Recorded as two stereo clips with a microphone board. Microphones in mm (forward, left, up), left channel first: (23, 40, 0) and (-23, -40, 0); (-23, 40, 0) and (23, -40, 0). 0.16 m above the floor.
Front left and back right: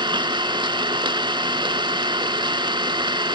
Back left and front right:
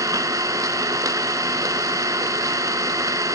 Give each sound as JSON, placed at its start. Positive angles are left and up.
{"t": 0.0, "sound": "an engine running", "azimuth_deg": -105, "distance_m": 0.9}